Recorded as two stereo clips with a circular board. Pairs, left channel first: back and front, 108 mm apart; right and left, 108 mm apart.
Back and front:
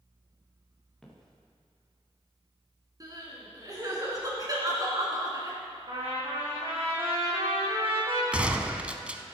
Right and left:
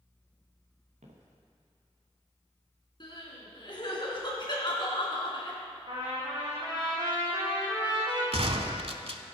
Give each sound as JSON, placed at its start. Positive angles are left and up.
{"t": 1.0, "sound": "footsteps", "azimuth_deg": 95, "distance_m": 3.0}
{"t": 3.0, "sound": "crying", "azimuth_deg": -50, "distance_m": 2.5}
{"t": 5.9, "sound": "a trumpet", "azimuth_deg": 40, "distance_m": 3.5}
{"t": 8.3, "sound": "a gunshot", "azimuth_deg": 80, "distance_m": 0.7}